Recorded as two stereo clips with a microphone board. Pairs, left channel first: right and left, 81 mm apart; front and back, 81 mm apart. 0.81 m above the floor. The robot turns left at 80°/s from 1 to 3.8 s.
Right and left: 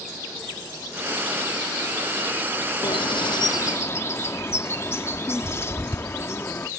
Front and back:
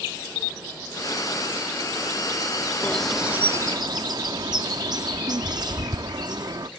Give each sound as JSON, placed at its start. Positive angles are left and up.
{"t": 2.8, "sound": "a bird", "azimuth_deg": -70}